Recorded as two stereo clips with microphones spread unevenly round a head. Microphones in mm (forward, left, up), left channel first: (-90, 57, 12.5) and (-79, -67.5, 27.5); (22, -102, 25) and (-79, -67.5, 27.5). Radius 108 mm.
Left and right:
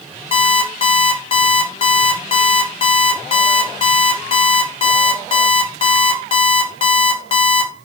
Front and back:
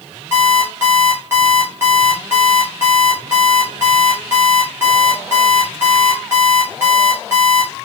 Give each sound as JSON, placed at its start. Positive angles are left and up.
{"t": 0.3, "sound": "an alarm clock", "azimuth_deg": 100, "distance_m": 0.6}